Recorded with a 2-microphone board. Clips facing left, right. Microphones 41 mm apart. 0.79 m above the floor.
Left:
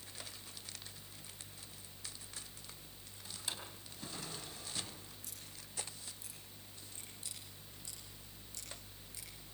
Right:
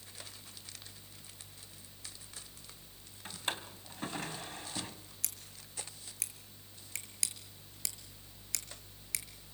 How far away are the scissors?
About 5.5 m.